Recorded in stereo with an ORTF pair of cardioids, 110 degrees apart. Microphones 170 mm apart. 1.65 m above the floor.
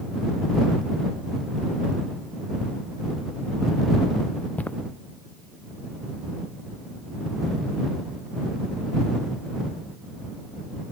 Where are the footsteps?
10° left.